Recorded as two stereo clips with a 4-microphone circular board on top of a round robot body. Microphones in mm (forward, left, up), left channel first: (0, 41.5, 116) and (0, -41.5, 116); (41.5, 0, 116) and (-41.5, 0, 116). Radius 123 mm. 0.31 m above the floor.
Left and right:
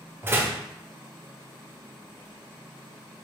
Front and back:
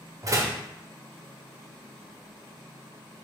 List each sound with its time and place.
0.2 s a door slam: 145° right, 1.0 m